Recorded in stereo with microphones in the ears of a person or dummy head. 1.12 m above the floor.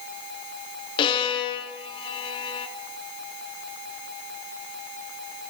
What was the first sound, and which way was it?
A violin, 25° left (ahead or behind).